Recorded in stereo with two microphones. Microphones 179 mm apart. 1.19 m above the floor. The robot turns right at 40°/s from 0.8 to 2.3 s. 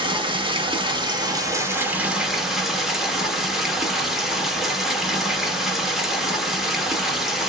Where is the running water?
65° right, 0.9 m; by 7.5 s 5° right, 0.9 m.